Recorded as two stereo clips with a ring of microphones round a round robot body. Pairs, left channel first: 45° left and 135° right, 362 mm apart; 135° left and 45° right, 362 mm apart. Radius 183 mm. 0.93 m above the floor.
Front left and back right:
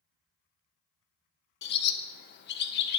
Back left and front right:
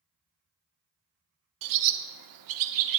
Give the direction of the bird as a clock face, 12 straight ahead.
12 o'clock.